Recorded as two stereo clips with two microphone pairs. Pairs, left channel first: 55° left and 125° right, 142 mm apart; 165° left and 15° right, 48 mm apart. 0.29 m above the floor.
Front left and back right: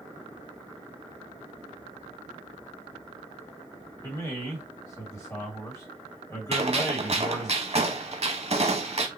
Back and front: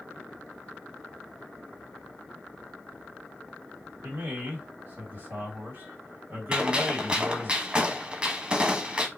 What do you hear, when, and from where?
4.0 s a man speaking: 5° right, 2.0 m
6.5 s a gunshot: 85° right, 0.7 m